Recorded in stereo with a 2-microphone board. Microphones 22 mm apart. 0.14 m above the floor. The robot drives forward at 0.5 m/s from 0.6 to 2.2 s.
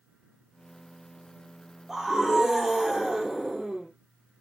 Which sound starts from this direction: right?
A scream, at 1.9 s.